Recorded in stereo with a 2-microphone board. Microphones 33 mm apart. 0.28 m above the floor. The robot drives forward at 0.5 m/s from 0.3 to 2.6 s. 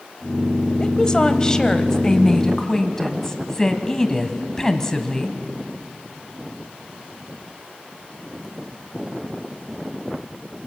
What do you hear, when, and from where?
0.8 s a woman speaking: 20° left (ahead or behind), 1.0 m; by 5.4 s 15° left (ahead or behind), 1.5 m